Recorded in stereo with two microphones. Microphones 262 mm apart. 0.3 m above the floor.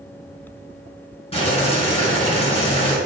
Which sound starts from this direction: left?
Boiling, at 1.3 s.